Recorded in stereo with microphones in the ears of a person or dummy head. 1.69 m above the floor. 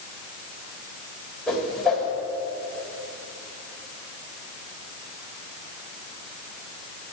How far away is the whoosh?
About 2 m.